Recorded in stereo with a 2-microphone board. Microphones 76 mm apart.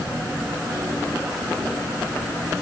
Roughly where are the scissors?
No scissors in this recording.